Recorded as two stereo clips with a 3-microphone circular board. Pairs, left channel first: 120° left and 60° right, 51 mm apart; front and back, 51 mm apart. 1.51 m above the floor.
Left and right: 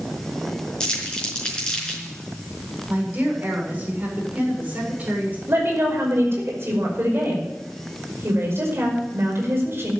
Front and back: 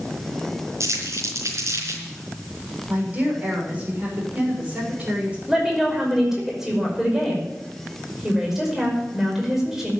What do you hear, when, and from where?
0.8 s crumpling: 170° right, 5 m
2.9 s a woman speaking: 120° right, 6.5 m
5.5 s a woman speaking: 100° right, 5.5 m